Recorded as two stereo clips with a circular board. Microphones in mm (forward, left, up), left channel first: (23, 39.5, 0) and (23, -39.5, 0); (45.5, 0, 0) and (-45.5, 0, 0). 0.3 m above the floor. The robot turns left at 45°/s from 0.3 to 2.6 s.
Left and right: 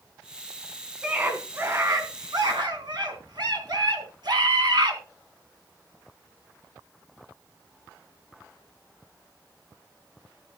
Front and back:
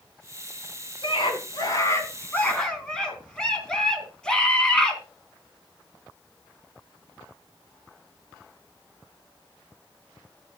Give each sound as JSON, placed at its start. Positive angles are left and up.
{"t": 1.0, "sound": "a scream", "azimuth_deg": -10, "distance_m": 3.5}